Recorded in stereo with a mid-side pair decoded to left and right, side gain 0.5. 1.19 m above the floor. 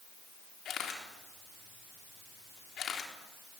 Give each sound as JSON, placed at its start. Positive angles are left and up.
{"t": 0.7, "sound": "a camera shutter", "azimuth_deg": 55, "distance_m": 4.0}